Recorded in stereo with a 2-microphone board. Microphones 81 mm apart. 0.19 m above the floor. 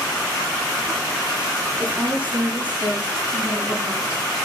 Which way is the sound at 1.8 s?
25° right (ahead or behind).